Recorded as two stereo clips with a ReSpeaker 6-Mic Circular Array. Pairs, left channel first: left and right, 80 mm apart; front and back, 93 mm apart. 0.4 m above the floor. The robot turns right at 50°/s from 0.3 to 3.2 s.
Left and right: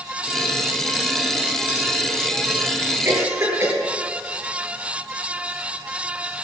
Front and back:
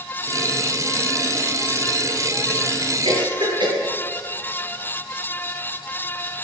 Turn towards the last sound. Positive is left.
turn(degrees=-145)